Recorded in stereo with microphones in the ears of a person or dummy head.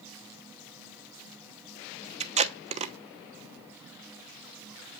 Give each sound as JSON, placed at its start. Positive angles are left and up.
{"t": 2.2, "sound": "tape being pulled", "side_deg": -40, "distance_m": 0.9}